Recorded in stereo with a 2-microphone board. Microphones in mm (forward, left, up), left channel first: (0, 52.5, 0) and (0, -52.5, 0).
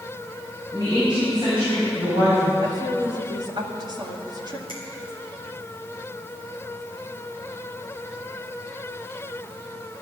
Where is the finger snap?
60° right (ahead or behind), 4 m.